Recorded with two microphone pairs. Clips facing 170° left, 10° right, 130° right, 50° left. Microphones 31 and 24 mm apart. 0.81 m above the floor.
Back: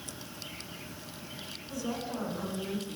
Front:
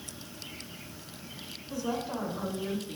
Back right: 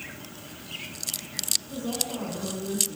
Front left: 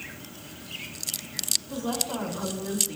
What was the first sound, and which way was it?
A woman speaking, 45° left.